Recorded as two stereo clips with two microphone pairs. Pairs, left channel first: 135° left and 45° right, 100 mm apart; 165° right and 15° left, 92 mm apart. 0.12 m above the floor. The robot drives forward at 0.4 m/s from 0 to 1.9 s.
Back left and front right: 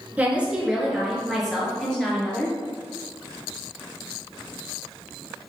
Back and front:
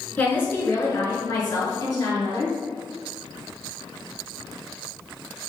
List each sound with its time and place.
0.2 s a woman speaking: 105° right, 1.2 m; by 2.6 s 145° right, 1.5 m